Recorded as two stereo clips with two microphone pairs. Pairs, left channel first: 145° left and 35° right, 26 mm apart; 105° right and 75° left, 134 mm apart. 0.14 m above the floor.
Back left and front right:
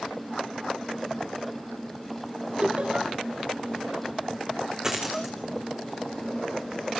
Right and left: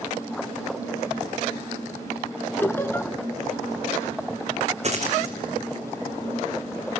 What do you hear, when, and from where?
2.6 s laughter: 40° right, 2.0 m
4.8 s a dropped coin: 35° left, 4 m